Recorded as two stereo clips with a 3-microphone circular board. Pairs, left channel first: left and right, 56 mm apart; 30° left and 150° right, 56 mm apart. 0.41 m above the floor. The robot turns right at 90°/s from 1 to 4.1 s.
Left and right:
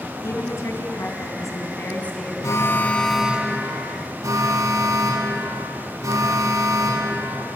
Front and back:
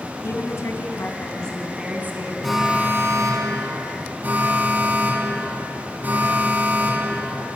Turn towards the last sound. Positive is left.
turn(degrees=-95)